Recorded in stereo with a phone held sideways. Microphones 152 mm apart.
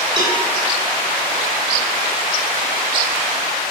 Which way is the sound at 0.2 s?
30° right (ahead or behind).